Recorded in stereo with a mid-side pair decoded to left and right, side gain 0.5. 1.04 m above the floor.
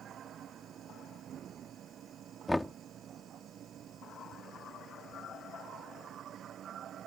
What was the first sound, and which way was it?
A machine running, 55° right.